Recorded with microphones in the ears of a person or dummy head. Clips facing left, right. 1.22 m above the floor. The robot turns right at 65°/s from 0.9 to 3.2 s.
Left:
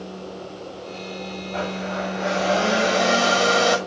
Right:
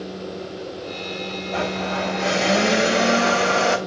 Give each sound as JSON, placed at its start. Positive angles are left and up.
{"t": 1.5, "sound": "a blender", "azimuth_deg": -100, "distance_m": 1.7}